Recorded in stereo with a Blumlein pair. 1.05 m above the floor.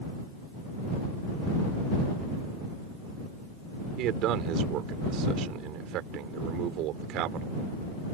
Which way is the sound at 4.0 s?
35° right.